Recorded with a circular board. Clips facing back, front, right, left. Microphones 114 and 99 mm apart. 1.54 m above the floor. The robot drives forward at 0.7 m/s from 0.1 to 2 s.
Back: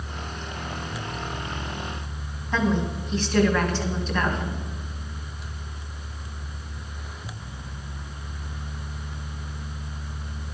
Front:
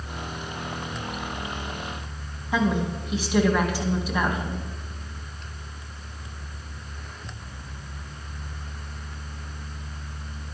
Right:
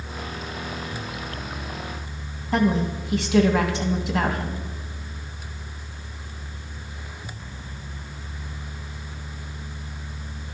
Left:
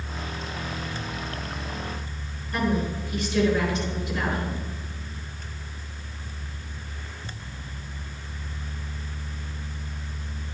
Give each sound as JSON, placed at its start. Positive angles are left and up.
{"t": 2.5, "sound": "a woman speaking", "azimuth_deg": -80, "distance_m": 2.0}